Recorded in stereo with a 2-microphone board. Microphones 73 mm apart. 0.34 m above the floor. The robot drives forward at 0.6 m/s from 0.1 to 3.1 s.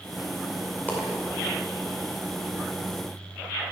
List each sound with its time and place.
0.9 s a dropped coin: 20° left (ahead or behind), 5 m